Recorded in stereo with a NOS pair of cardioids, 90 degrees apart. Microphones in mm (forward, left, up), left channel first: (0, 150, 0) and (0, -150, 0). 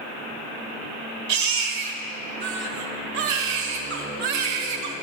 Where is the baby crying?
70° right, 1.3 m.